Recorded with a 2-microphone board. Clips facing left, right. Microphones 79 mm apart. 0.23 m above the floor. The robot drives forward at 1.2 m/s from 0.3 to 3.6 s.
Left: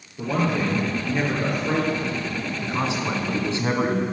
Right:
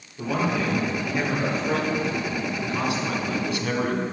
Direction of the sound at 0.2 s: 10° left (ahead or behind).